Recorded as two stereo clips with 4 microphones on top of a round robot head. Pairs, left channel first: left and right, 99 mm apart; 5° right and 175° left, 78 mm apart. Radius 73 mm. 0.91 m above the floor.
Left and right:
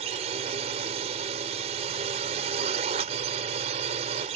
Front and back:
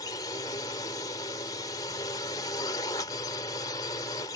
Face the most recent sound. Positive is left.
turn(degrees=-60)